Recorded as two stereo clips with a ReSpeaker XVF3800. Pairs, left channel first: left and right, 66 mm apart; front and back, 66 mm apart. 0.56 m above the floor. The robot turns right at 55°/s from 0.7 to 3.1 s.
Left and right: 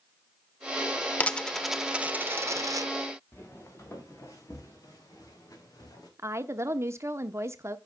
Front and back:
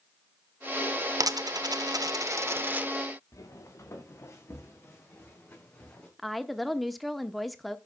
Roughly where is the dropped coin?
Behind left.